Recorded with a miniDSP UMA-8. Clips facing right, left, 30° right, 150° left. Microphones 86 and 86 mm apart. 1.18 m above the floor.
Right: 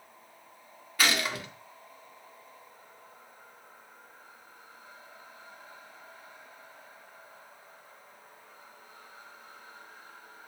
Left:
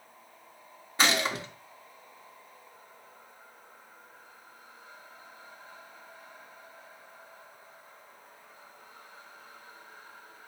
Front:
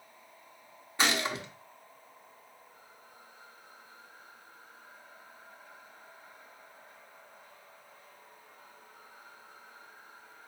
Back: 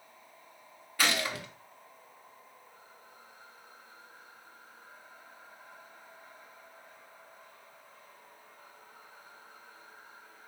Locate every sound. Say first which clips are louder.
1.0 s a gunshot: left 2 dB, front 1 dB; 30° left, 0.8 m